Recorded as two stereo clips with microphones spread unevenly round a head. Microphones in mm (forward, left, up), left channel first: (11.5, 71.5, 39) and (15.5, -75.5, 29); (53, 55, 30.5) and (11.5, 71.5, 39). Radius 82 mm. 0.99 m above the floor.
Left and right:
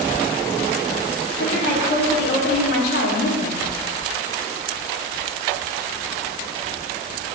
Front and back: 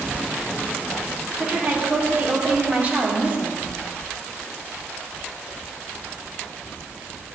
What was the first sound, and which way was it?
A woman speaking, 100° left.